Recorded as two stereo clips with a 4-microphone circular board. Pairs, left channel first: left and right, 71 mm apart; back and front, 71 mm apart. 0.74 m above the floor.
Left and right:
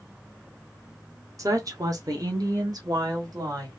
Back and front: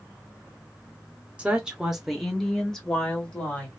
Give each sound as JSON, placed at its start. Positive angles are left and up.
{"t": 1.4, "sound": "a woman speaking", "azimuth_deg": -70, "distance_m": 1.0}